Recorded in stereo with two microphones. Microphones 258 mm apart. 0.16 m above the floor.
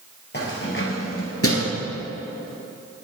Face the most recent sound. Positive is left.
turn(degrees=65)  # may be behind; listen again after turning